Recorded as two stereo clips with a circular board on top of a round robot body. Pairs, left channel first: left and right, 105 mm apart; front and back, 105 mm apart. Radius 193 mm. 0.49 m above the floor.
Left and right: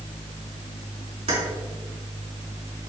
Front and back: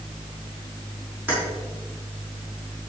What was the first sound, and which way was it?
Keys jangling, 110° right.